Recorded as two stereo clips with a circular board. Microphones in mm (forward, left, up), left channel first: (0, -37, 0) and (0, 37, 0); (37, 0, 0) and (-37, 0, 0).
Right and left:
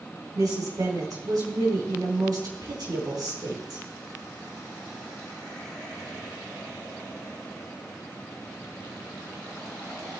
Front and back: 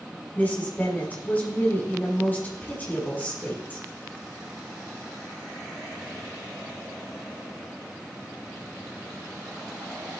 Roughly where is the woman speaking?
Ahead left.